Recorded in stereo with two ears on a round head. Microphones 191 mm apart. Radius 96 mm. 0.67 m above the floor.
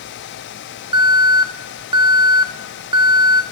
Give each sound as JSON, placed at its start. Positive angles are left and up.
{"t": 0.9, "sound": "an alarm", "side_deg": -20, "distance_m": 0.5}